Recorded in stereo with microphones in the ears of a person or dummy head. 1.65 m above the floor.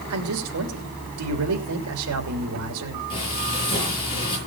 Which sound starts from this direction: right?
A man speaking, at 0.1 s.